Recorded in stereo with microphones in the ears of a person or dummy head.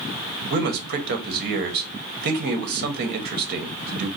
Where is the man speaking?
50° right (ahead or behind), 1.2 m.